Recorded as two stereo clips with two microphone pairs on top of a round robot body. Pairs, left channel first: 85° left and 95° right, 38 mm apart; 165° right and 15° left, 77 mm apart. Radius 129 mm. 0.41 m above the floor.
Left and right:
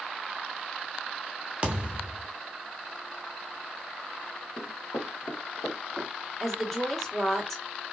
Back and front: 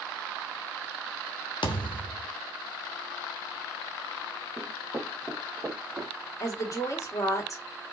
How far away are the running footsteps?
About 1.1 m.